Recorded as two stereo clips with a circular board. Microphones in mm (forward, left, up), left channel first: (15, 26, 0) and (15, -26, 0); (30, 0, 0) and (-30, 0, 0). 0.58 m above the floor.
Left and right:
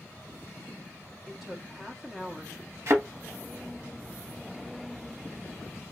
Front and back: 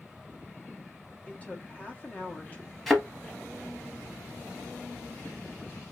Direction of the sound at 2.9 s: 90° right.